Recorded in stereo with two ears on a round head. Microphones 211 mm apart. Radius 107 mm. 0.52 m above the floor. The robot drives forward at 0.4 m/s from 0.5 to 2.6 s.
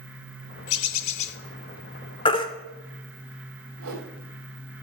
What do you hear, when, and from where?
0.7 s a bird: 60° left (ahead or behind), 0.6 m; by 1.4 s 85° left, 0.6 m
2.2 s a baby crying: 25° left (ahead or behind), 1.0 m; by 2.5 s 20° left (ahead or behind), 1.1 m
3.8 s a whoosh: 65° right (ahead or behind), 3 m